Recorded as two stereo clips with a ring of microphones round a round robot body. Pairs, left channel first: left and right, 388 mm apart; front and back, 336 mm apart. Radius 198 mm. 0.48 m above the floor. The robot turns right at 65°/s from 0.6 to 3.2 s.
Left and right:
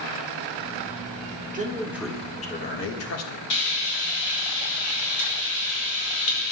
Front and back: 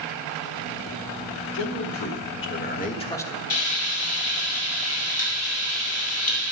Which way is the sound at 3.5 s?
45° left.